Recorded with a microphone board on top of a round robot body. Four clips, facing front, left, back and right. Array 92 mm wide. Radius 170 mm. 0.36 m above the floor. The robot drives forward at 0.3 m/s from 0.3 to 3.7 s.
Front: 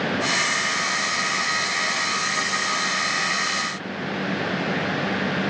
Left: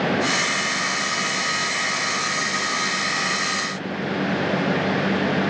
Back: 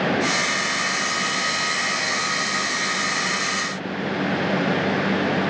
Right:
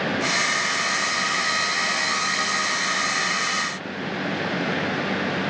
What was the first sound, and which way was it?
Only background noise.